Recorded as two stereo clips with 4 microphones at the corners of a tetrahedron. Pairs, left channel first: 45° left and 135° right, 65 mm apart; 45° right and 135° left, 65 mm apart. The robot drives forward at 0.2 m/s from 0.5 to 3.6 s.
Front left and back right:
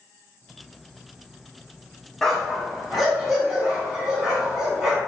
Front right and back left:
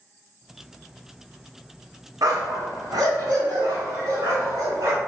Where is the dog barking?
130° left, 0.6 m; by 5.0 s 145° left, 0.8 m.